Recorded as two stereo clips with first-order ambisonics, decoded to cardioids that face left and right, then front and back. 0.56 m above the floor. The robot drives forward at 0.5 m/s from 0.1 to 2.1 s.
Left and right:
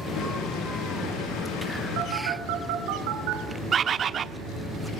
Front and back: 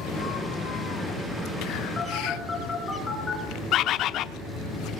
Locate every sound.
2.0 s a phone buzzing: 75° right, 3.5 m
3.7 s a bird: 35° right, 0.8 m